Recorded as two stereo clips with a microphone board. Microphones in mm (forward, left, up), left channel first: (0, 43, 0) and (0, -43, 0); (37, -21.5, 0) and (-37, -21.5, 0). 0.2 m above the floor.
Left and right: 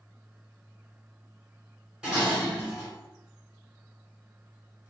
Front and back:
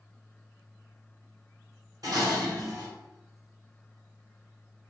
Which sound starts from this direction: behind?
Dishes clattering, at 2.0 s.